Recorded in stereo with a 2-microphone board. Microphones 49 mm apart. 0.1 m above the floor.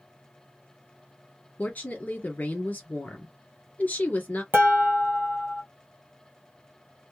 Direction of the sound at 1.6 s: 35° left (ahead or behind).